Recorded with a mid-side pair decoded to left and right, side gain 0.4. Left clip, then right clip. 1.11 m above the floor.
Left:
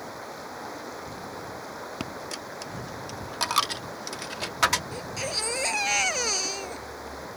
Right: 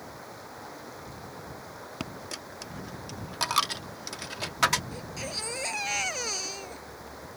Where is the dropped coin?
15° left.